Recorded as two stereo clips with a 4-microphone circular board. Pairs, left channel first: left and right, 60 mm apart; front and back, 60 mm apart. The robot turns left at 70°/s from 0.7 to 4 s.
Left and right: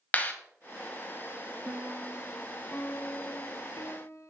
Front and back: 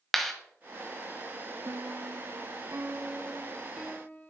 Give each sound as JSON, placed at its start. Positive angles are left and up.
{"t": 0.1, "sound": "a clap", "azimuth_deg": 85, "distance_m": 0.8}
{"t": 1.6, "sound": "a piano", "azimuth_deg": -140, "distance_m": 0.6}